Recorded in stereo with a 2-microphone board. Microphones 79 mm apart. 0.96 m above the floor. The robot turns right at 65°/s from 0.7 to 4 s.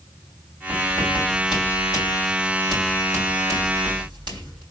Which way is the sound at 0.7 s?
45° left (ahead or behind).